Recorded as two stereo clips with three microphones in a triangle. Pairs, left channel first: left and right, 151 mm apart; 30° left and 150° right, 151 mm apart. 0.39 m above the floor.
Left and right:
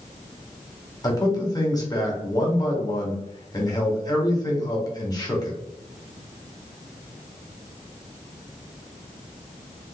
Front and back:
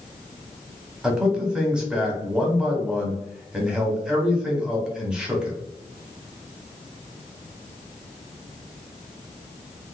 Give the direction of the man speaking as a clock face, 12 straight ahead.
8 o'clock.